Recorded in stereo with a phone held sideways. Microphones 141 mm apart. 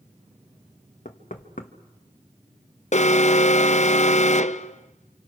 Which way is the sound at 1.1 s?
70° left (ahead or behind).